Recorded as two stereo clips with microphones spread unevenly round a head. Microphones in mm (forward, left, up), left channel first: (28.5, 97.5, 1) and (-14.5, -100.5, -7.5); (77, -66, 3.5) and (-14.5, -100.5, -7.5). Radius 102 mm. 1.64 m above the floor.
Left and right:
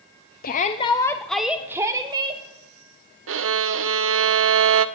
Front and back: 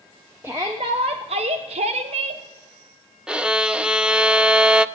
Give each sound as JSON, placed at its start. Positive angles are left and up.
{"t": 0.4, "sound": "a shout", "azimuth_deg": 125, "distance_m": 0.6}
{"t": 3.3, "sound": "a violin", "azimuth_deg": -75, "distance_m": 0.6}